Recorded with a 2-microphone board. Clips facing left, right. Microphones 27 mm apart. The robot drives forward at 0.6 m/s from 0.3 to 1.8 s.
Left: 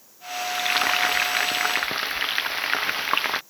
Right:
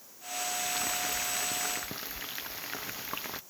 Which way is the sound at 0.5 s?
45° left (ahead or behind).